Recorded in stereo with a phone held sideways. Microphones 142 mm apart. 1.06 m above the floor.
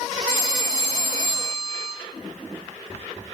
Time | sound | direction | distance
0.3 | a phone ringing | 90° left | 2.5 m